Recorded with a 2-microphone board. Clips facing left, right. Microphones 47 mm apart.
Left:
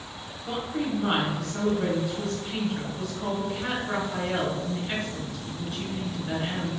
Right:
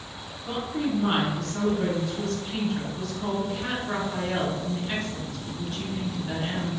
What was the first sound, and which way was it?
A woman speaking, centre (ahead or behind).